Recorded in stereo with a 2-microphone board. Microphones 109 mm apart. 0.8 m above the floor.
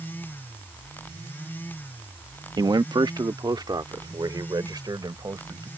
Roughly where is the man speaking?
Right.